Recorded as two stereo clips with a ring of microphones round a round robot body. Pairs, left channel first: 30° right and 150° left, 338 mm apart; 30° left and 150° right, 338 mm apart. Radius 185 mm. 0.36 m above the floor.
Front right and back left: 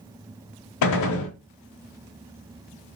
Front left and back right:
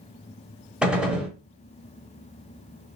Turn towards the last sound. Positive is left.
turn(degrees=-65)